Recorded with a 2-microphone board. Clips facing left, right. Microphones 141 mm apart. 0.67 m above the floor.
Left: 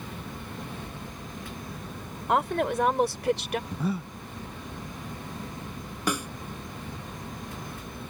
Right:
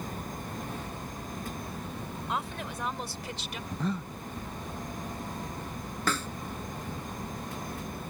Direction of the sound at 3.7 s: 10° left (ahead or behind).